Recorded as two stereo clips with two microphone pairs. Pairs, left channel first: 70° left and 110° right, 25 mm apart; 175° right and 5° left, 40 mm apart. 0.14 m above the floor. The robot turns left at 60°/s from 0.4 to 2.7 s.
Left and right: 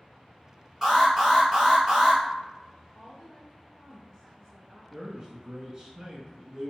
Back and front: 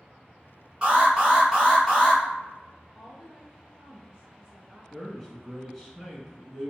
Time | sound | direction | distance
0.8 | an alarm | 35° right | 1.9 m
2.9 | a woman speaking | 60° left | 1.2 m
4.9 | a man speaking | 95° right | 1.1 m